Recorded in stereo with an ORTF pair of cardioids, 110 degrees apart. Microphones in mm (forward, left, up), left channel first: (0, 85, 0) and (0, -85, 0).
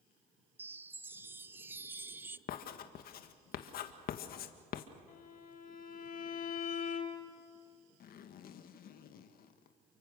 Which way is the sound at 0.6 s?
15° right.